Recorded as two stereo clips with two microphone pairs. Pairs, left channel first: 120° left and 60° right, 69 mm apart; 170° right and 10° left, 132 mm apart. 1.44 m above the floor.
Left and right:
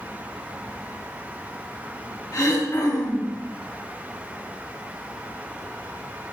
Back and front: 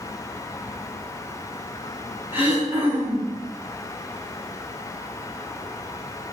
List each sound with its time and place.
2.3 s throat clearing: 85° left, 7 m